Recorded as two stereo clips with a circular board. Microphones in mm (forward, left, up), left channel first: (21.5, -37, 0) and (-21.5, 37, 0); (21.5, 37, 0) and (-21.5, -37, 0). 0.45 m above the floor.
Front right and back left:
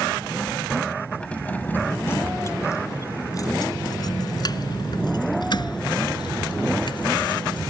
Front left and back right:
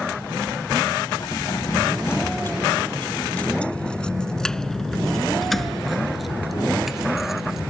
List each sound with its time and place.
1.2 s keys jangling: 20° left; by 7.6 s 35° right